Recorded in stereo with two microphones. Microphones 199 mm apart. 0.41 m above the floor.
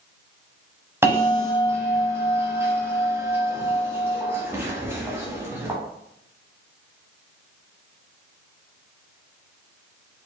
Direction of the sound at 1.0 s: 10° right (ahead or behind).